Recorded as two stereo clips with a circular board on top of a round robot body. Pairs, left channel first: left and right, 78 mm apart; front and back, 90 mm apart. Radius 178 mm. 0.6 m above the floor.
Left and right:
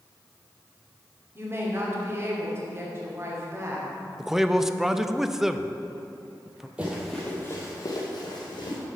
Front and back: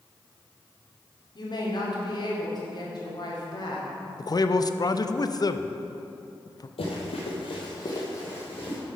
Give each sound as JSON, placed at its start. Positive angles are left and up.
{"t": 1.4, "sound": "a woman speaking", "azimuth_deg": -35, "distance_m": 2.5}
{"t": 4.2, "sound": "a man speaking", "azimuth_deg": -5, "distance_m": 0.7}
{"t": 6.8, "sound": "running footsteps", "azimuth_deg": -15, "distance_m": 1.5}